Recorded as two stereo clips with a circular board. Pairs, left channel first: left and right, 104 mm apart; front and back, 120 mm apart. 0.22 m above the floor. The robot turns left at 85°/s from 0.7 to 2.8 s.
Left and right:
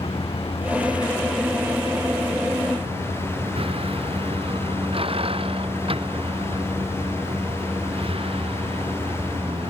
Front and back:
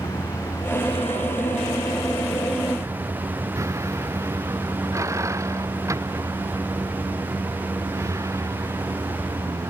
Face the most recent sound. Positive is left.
turn(degrees=-115)